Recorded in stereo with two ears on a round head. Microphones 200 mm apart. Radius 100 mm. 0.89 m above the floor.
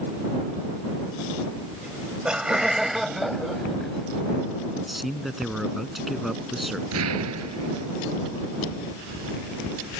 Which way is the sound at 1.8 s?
5° right (ahead or behind).